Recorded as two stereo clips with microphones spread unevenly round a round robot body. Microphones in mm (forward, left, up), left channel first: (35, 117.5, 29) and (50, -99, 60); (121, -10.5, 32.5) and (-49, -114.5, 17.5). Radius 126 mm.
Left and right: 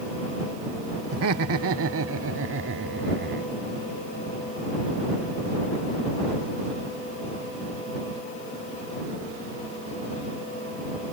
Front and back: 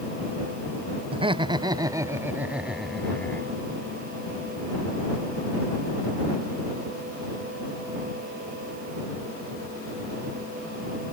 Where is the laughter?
90° right; by 3.5 s 45° right.